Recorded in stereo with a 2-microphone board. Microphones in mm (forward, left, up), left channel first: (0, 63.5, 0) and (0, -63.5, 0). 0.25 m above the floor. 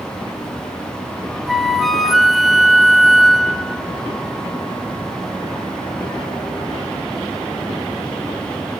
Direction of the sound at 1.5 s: Centre (ahead or behind).